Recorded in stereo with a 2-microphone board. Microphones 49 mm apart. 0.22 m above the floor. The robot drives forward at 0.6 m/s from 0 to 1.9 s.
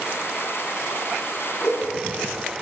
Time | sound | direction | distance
1.6 | a whoosh | 55° left (ahead or behind) | 1.1 m